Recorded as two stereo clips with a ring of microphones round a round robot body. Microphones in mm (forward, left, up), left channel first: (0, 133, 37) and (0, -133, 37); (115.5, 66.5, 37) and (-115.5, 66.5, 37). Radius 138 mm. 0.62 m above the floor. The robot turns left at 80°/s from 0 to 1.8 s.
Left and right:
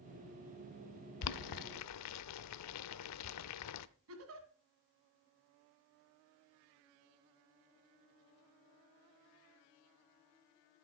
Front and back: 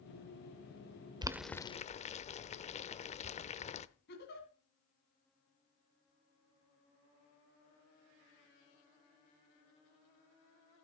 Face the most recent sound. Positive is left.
turn(degrees=-55)